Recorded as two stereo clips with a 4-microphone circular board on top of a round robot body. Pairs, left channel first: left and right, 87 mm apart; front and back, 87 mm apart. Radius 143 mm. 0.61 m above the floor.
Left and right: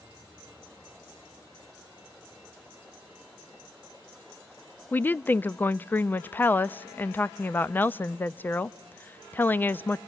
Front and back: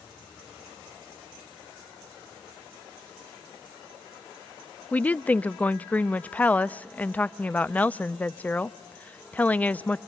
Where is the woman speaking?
50° left, 0.5 m.